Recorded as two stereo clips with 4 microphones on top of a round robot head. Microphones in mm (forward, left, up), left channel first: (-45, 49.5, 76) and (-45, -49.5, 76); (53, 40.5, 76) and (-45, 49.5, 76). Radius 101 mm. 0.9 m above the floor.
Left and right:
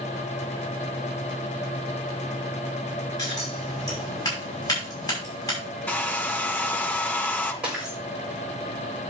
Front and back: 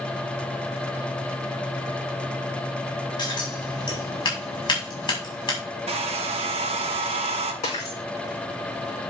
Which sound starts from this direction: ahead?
Breaking glass, at 7.6 s.